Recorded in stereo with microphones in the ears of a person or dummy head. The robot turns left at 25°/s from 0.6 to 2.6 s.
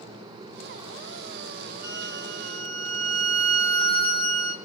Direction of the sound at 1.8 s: 75° right (ahead or behind).